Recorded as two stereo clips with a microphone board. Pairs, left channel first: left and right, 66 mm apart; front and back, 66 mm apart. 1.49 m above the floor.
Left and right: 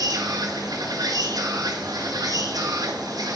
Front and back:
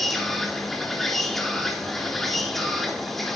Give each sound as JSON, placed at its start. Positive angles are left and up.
{"t": 0.0, "sound": "an insect", "azimuth_deg": -85, "distance_m": 3.5}